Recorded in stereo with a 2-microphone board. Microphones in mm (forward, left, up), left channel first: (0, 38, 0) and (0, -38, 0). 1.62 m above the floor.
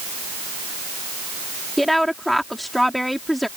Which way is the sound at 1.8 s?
Centre (ahead or behind).